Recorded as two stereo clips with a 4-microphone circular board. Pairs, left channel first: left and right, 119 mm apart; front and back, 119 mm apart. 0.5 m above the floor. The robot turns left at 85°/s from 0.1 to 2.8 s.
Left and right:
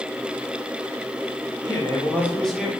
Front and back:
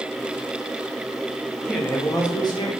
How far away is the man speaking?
About 0.9 m.